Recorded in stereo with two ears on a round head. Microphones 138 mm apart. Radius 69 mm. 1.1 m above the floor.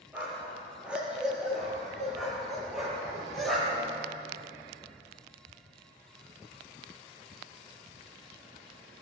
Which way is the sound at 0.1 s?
10° right (ahead or behind).